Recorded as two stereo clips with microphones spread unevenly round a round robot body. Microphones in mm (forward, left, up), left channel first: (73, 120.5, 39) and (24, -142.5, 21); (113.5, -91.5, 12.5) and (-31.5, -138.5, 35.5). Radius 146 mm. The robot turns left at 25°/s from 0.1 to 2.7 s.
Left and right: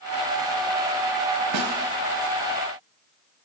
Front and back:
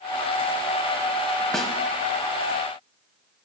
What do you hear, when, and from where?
1.5 s a snare drum: 70° right, 1.0 m; by 1.7 s 75° right, 1.0 m